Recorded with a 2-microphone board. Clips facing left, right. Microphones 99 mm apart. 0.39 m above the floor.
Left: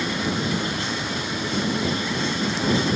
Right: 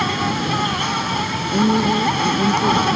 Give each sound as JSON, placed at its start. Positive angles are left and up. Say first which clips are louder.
{"t": 0.0, "sound": "an insect", "louder": "right 5 dB", "side_deg": -70}
{"t": 1.5, "sound": "a woman speaking", "louder": "right 9 dB", "side_deg": -55}